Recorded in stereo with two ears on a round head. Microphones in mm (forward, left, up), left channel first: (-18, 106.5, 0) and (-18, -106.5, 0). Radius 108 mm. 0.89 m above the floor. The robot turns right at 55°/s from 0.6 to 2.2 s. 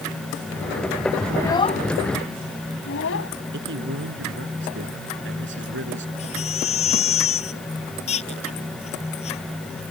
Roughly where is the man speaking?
Right.